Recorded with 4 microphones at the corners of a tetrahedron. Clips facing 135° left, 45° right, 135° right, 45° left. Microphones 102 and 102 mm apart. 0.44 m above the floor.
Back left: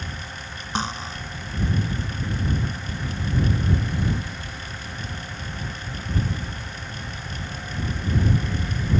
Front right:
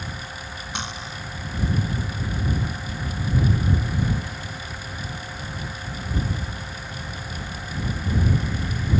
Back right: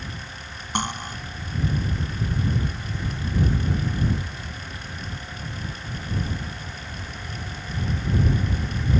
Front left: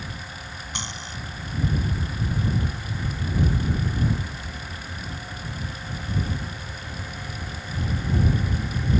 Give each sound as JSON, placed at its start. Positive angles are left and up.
{"t": 0.8, "sound": "cutlery clinking", "azimuth_deg": -170}